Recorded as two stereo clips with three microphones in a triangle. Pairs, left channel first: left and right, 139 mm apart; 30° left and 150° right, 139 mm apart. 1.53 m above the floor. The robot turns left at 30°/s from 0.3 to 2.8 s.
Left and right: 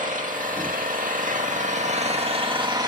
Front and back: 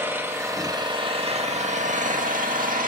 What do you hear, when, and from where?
0.0 s an engine running: 75° right, 1.9 m; by 2.9 s 150° right, 1.9 m